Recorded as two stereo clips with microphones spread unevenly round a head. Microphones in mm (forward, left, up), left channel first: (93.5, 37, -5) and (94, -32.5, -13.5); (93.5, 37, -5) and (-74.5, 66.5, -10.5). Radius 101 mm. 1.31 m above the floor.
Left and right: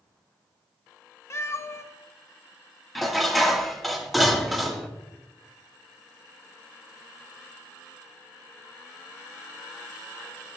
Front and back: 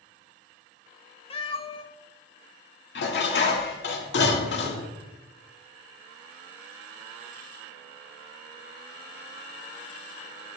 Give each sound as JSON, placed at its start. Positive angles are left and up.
{"t": 1.3, "sound": "a cat meowing", "azimuth_deg": 45, "distance_m": 1.5}
{"t": 3.0, "sound": "dishes clattering", "azimuth_deg": 0, "distance_m": 1.8}